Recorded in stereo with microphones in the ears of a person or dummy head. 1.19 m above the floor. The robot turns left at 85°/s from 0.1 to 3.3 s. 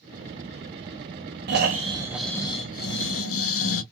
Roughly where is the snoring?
Behind right.